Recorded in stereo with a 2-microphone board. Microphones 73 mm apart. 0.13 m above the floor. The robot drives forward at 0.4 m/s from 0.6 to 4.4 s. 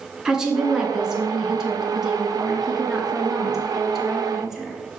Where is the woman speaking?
10° right (ahead or behind), 1.2 m; by 4.8 s 5° right (ahead or behind), 2 m.